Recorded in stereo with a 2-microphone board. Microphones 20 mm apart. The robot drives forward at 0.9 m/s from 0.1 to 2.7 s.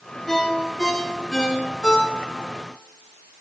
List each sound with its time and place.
0.3 s a ringtone: 20° left (ahead or behind), 2.5 m; by 2.5 s 70° left (ahead or behind), 1.0 m